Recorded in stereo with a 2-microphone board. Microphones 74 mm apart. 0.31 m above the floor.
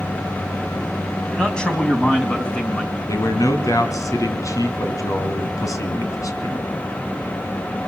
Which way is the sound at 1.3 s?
10° left (ahead or behind).